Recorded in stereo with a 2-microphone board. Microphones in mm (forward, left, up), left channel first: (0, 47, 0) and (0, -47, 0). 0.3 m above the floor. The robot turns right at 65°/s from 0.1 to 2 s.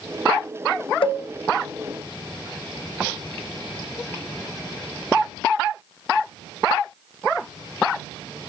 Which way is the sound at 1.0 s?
65° left (ahead or behind).